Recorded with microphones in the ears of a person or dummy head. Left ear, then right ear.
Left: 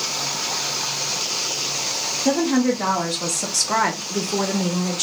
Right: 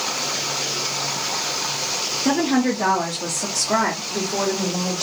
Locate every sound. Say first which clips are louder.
2.2 s a woman speaking: left 1 dB; 15° right (ahead or behind), 0.8 m; by 5.0 s 65° left (ahead or behind), 1.2 m